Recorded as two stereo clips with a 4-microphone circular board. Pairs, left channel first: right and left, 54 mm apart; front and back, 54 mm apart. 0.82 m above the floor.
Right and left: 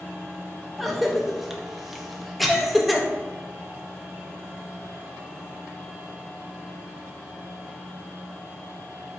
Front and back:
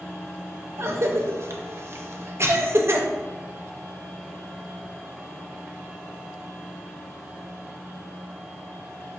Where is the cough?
175° left, 0.6 m.